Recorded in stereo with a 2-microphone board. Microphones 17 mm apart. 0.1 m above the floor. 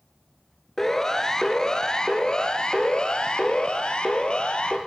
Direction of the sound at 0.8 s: 20° left (ahead or behind).